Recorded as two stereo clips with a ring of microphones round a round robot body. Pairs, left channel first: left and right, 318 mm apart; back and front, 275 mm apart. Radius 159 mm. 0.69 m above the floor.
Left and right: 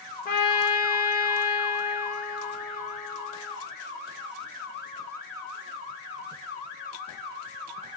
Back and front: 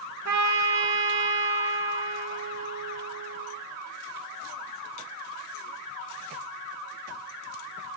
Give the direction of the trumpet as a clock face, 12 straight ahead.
11 o'clock.